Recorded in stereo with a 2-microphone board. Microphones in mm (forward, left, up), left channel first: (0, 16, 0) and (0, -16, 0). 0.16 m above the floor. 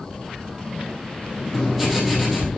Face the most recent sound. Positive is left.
turn(degrees=0)  # may be behind; listen again after turning